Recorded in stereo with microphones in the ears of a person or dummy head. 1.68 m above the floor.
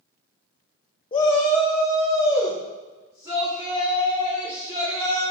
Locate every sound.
1.1 s a shout: 25° left (ahead or behind), 0.5 m; by 5.2 s 25° right (ahead or behind), 5 m